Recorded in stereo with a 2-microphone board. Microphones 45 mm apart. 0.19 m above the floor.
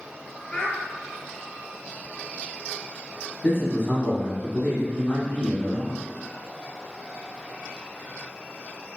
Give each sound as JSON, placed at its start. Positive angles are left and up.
{"t": 0.5, "sound": "a child speaking", "side_deg": 30, "distance_m": 1.9}
{"t": 3.4, "sound": "a man speaking", "side_deg": 15, "distance_m": 1.3}